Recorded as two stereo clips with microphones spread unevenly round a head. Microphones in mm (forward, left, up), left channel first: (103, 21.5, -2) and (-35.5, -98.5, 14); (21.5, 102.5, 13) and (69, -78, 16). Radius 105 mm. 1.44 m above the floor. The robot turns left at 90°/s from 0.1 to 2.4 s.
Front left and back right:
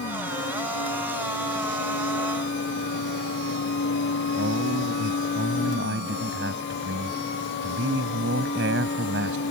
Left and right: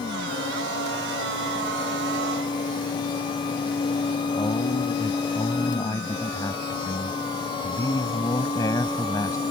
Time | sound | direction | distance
4.4 | a man speaking | straight behind | ?